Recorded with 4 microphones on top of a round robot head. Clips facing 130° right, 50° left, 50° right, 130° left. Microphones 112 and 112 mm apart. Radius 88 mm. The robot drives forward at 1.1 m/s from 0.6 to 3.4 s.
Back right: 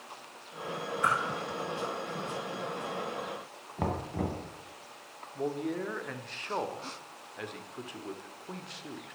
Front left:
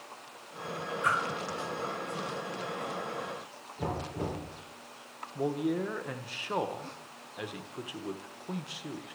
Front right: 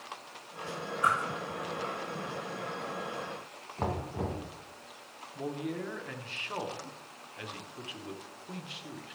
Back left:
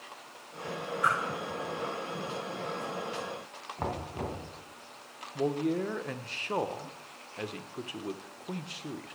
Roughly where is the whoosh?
Behind right.